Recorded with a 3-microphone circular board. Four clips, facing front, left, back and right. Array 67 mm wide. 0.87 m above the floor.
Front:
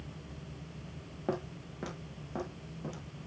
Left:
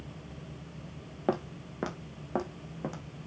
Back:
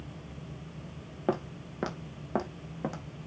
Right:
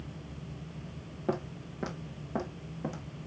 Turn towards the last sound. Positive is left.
turn(degrees=165)